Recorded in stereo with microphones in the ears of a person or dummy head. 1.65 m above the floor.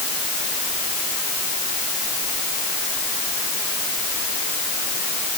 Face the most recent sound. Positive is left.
No sound to turn to.